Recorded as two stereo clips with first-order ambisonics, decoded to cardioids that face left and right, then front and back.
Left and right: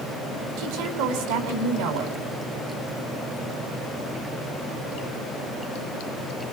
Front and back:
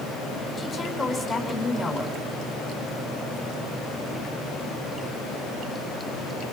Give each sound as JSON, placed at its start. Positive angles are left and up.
{"t": 0.6, "sound": "a woman speaking", "azimuth_deg": -80, "distance_m": 5.0}